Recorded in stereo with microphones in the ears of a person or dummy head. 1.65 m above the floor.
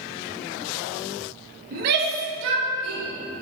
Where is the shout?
50° right (ahead or behind), 1.4 m; by 3.1 s 90° right, 3 m.